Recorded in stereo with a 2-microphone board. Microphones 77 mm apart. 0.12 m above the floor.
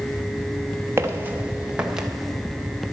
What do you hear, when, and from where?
1.0 s footsteps: 35° right (ahead or behind), 1.7 m; by 2.1 s 5° right (ahead or behind), 2 m